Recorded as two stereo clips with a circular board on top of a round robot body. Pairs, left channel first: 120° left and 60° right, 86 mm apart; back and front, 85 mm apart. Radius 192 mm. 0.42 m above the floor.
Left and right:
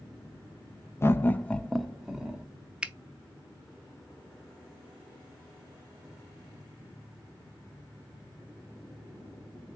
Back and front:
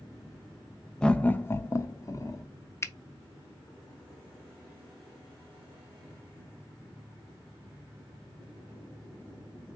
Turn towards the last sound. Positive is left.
turn(degrees=-135)